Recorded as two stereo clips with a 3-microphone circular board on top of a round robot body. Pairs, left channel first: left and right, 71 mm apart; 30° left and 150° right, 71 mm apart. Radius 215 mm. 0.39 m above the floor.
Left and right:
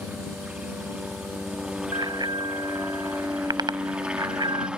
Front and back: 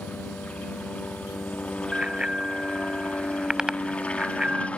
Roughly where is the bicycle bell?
Right.